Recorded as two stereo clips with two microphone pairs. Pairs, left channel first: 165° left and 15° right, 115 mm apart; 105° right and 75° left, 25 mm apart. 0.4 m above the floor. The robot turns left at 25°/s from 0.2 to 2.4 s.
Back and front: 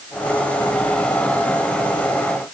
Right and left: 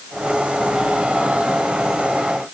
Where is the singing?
I don't hear singing.